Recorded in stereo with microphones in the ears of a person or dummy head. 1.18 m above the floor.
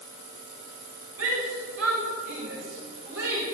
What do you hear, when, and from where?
1.2 s a shout: 80° right, 7.5 m; by 3.5 s 65° right (ahead or behind), 5.5 m